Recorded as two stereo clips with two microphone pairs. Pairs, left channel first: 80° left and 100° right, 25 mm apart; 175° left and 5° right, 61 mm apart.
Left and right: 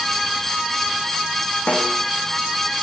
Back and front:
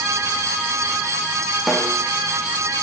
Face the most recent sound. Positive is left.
turn(degrees=85)